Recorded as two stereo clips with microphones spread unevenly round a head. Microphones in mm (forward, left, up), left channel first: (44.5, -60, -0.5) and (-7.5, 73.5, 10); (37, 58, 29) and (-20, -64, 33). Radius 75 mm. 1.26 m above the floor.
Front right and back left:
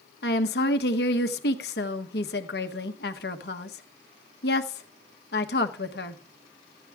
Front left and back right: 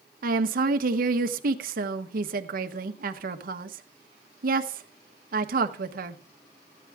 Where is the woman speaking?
95° right, 1.2 m.